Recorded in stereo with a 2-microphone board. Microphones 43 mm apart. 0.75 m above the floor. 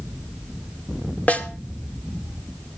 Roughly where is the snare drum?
Left.